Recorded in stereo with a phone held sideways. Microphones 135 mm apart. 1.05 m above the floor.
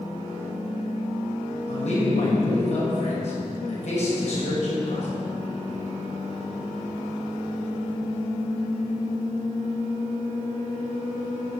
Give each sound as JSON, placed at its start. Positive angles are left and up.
{"t": 1.7, "sound": "a man speaking", "side_deg": 55, "distance_m": 6.0}